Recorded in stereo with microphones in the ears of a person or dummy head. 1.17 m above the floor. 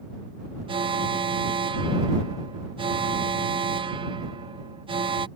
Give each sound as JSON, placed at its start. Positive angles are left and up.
{"t": 0.7, "sound": "an alarm", "side_deg": -25}